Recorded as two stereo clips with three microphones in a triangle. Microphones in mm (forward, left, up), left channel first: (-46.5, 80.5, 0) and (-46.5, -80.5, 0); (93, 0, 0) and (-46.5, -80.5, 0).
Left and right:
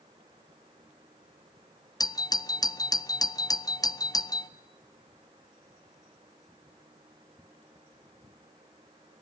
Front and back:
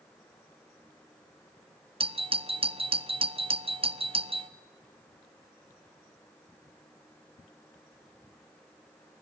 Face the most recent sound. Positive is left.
turn(degrees=160)